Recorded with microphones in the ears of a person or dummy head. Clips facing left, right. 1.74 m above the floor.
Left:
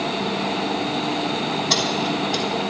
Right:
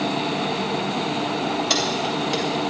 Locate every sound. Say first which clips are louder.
1.7 s keys jangling: left 1 dB; 45° right (ahead or behind), 1.5 m